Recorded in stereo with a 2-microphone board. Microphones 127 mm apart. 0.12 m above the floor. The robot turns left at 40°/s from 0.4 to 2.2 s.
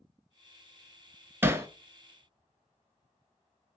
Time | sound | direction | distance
1.4 | hammering | 15° right (ahead or behind) | 0.7 m